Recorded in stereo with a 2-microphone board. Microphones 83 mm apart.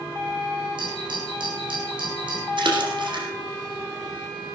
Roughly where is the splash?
Right.